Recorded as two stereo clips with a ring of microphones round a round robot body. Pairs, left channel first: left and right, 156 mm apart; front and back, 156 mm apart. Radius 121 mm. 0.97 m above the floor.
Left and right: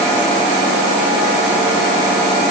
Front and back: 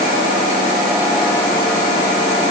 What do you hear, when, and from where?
Only background noise.